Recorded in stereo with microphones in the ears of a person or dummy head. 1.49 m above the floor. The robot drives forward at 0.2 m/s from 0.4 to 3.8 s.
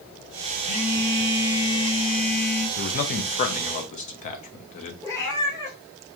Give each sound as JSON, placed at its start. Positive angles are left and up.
{"t": 0.6, "sound": "a phone buzzing", "side_deg": 15, "distance_m": 1.5}
{"t": 2.8, "sound": "a man speaking", "side_deg": 45, "distance_m": 0.6}
{"t": 5.0, "sound": "a cat meowing", "side_deg": 15, "distance_m": 1.6}